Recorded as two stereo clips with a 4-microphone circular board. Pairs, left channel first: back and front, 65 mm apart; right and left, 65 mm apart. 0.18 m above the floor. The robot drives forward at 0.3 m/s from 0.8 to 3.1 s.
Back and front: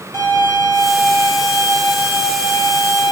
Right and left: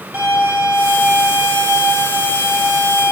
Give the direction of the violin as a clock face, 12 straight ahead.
7 o'clock.